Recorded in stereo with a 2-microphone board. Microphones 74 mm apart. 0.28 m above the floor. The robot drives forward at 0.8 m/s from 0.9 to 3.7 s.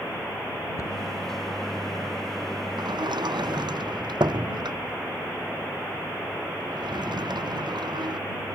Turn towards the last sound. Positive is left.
turn(degrees=-80)